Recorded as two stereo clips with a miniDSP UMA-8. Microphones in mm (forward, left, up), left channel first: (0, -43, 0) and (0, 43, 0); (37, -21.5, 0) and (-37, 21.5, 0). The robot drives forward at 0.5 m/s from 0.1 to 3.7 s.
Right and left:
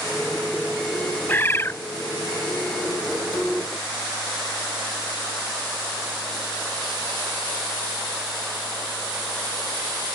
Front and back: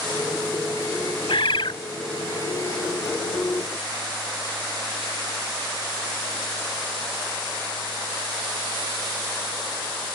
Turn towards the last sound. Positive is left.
turn(degrees=-135)